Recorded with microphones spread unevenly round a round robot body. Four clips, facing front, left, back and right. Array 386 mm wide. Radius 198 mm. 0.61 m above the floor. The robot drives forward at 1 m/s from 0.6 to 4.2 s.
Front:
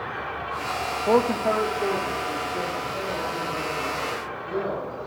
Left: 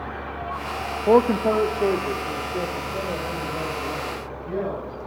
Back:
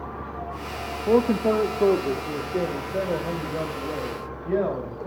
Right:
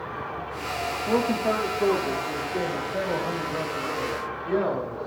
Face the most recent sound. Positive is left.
turn(degrees=175)